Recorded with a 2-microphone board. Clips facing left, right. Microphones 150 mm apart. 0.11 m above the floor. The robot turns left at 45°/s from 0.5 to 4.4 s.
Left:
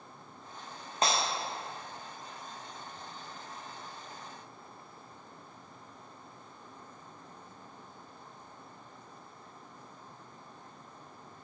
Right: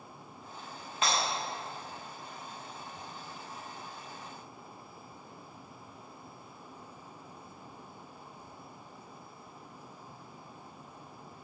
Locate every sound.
1.0 s breaking glass: 40° left (ahead or behind), 3 m; by 1.2 s 45° left (ahead or behind), 3 m